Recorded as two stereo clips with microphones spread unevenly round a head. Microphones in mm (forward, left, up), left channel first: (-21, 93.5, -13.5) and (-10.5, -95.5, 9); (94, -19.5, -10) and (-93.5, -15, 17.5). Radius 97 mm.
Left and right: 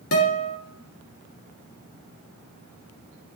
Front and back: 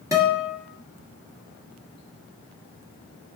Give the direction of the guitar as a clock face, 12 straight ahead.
9 o'clock.